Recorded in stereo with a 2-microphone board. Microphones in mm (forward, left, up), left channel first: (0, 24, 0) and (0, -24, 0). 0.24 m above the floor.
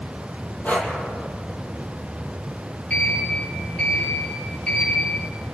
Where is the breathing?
40° left (ahead or behind), 3.5 m.